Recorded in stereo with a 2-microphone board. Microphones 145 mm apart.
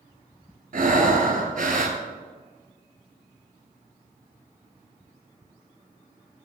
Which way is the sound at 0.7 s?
60° right (ahead or behind).